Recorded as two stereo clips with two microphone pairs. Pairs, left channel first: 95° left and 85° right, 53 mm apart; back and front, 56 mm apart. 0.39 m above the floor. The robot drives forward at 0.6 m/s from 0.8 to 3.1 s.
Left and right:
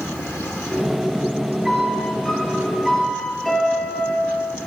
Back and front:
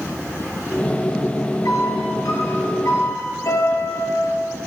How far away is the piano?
About 2.5 m.